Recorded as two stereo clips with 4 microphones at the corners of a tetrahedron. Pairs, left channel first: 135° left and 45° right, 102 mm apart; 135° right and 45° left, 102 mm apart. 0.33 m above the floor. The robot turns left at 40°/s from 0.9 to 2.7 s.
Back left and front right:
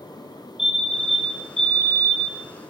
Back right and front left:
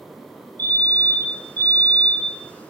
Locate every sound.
0.6 s a fire alarm: 125° right, 1.8 m; by 2.4 s 175° left, 1.8 m